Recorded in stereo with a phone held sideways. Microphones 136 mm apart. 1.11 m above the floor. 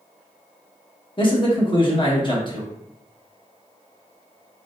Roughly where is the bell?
I don't hear a bell.